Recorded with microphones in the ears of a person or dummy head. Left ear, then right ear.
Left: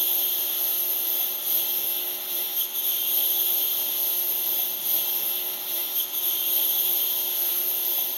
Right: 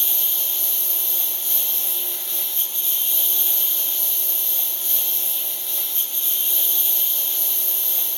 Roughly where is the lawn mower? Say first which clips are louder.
Right 3 dB; centre.